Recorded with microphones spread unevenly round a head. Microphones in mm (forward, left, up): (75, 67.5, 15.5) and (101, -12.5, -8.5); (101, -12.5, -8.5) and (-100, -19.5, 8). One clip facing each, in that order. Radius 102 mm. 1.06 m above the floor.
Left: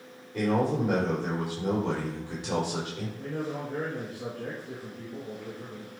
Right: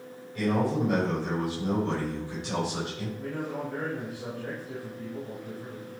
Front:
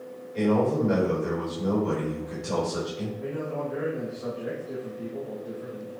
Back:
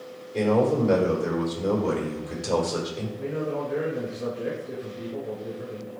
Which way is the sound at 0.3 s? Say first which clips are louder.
Left 1 dB, back 2 dB; 140° left.